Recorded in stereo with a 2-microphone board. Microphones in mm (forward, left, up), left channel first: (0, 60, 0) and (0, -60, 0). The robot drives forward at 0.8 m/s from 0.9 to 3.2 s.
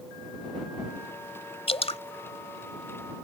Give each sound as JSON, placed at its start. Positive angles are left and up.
{"t": 1.7, "sound": "dripping", "side_deg": 55}